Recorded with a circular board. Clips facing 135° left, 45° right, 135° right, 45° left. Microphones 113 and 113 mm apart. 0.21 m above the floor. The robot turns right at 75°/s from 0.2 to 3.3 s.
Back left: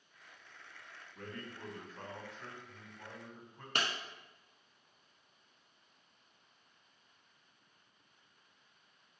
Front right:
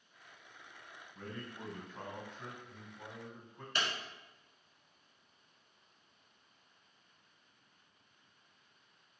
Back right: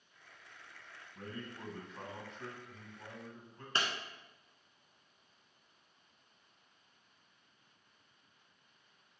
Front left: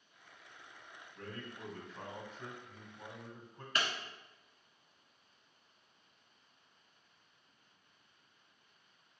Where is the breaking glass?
165° left, 0.7 m.